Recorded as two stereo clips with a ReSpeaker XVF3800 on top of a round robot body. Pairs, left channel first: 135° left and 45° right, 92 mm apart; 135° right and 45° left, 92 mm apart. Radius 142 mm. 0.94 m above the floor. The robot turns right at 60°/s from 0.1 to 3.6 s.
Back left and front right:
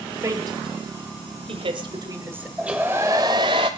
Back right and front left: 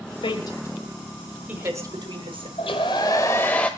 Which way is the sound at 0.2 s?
105° right.